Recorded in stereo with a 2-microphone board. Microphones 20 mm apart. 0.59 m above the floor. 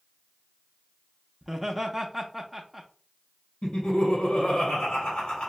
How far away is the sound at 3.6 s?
About 2 m.